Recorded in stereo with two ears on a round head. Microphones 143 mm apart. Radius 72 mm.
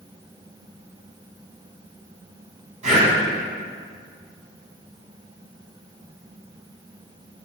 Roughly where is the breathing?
Right.